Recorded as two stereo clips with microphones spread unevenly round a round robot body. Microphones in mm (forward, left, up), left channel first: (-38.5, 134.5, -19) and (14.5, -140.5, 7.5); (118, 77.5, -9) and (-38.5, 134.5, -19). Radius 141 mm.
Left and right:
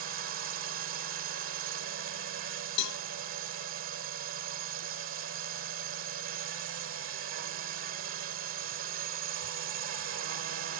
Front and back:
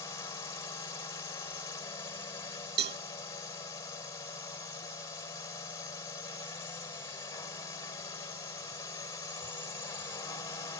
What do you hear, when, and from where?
0.0 s a drone: 80° right
2.8 s a cowbell: 135° left